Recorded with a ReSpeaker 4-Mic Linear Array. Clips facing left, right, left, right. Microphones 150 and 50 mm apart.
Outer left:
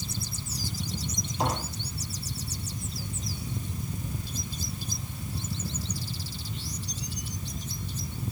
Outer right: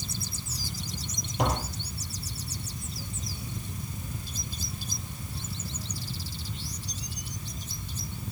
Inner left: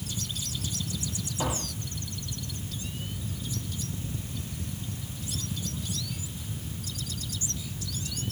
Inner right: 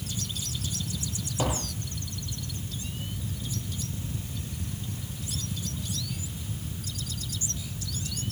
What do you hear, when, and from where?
1.4 s tapping: 70° right (ahead or behind), 6 m